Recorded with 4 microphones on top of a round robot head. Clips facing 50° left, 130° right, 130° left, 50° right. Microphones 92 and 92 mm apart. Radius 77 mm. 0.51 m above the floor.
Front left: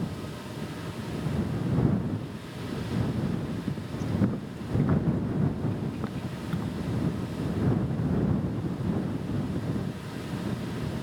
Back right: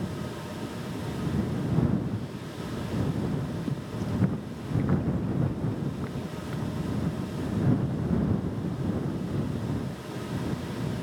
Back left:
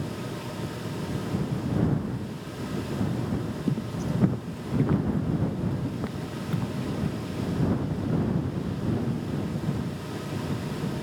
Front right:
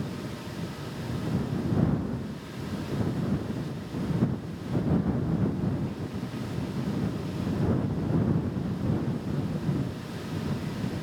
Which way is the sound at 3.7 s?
155° left.